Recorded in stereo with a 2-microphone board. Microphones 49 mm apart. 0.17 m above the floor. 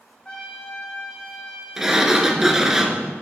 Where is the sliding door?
10° right (ahead or behind), 0.8 m.